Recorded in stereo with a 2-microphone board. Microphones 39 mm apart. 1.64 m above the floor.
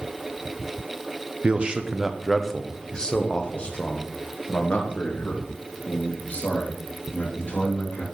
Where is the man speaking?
35° right (ahead or behind), 0.7 m; by 8.0 s 55° left (ahead or behind), 3.5 m.